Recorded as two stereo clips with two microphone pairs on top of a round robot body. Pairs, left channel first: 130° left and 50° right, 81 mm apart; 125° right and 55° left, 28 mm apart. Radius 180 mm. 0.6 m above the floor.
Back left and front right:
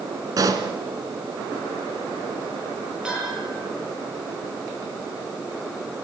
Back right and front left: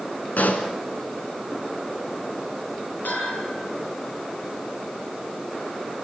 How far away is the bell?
About 9 m.